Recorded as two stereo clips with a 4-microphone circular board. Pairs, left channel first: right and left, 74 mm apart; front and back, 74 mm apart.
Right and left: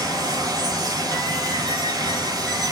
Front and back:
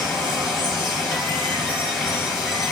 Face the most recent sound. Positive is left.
turn(degrees=85)